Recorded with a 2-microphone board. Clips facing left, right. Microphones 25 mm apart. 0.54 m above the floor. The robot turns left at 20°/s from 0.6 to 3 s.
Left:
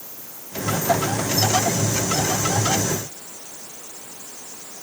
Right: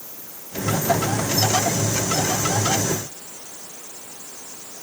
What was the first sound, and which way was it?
Only background noise.